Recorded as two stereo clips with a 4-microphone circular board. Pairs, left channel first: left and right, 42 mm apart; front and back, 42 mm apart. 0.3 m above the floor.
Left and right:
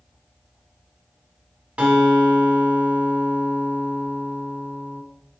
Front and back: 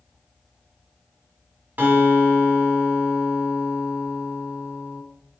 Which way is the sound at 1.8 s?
145° right.